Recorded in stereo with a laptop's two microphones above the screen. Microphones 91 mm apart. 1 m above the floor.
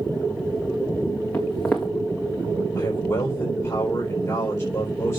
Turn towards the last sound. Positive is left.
turn(degrees=40)  # may be behind; listen again after turning